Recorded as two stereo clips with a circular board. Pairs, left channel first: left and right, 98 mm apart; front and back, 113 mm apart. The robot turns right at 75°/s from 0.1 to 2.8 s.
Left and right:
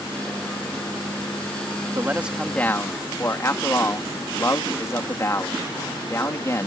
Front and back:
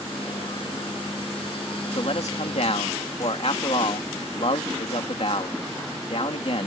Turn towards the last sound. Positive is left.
turn(degrees=30)